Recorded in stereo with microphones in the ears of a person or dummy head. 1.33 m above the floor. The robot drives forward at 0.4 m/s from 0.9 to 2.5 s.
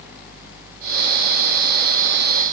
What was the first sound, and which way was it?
Only background noise.